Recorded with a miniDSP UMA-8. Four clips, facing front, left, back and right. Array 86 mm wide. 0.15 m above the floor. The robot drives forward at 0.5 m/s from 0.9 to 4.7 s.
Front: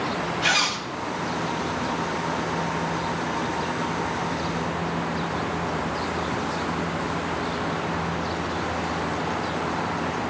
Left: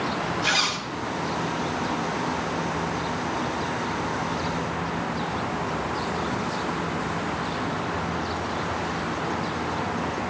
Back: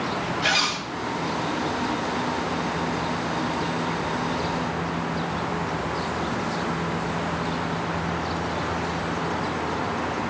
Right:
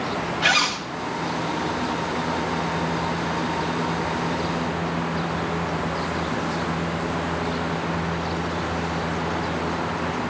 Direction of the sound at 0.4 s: 90° right.